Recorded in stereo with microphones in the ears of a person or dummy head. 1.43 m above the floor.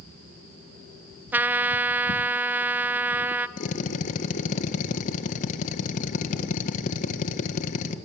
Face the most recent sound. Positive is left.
turn(degrees=45)  # may be behind; listen again after turning